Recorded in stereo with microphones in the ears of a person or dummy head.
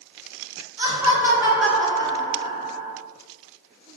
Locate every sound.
0.8 s laughter: 20° right (ahead or behind), 1.0 m; by 3.0 s 35° left (ahead or behind), 0.7 m